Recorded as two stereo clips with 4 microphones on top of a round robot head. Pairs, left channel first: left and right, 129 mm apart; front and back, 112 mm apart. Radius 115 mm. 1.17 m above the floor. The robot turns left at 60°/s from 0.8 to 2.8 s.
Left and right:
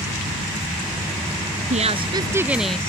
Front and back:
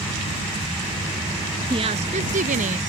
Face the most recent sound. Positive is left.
turn(degrees=175)